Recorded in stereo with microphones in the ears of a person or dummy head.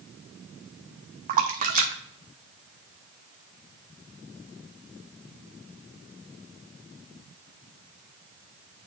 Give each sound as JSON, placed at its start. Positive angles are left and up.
{"t": 1.3, "sound": "a splash", "side_deg": -35, "distance_m": 0.7}